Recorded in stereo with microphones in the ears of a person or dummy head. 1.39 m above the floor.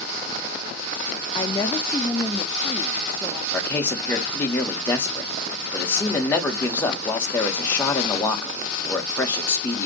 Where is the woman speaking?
25° left (ahead or behind), 0.5 m; by 3.4 s 5° left (ahead or behind), 1.7 m.